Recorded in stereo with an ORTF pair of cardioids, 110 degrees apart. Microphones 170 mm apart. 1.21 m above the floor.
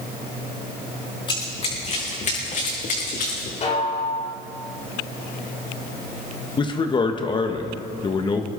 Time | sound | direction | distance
1.3 | running footsteps | 30° left | 5.5 m
3.6 | a snare drum | 40° left | 4 m
6.6 | a man speaking | 30° left | 1.5 m